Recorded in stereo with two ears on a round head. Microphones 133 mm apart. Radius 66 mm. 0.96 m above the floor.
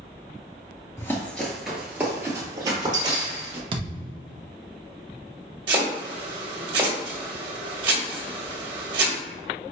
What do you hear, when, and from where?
1.0 s running footsteps: 20° left (ahead or behind), 0.9 m; by 3.6 s 35° right (ahead or behind), 1.6 m
3.7 s a thud: 35° right (ahead or behind), 0.5 m
5.7 s chopping: 30° right (ahead or behind), 1.5 m